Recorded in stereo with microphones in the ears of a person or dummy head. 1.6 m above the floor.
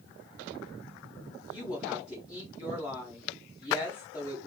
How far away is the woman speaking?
About 1.4 m.